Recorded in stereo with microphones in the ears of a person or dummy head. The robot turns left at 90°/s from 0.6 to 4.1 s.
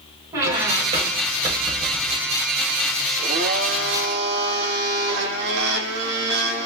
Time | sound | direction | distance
0.3 | a squeak | 20° right (ahead or behind) | 1.6 m
3.2 | a blender | 30° right | 1.2 m